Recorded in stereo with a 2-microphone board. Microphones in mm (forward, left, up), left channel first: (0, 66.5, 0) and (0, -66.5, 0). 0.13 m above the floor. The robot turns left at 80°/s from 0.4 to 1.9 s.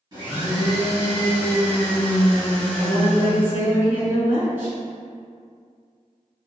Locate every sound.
0.1 s a blender: 30° right (ahead or behind), 1.6 m; by 3.6 s 10° left (ahead or behind), 1.6 m
2.8 s a woman speaking: 15° right (ahead or behind), 1.2 m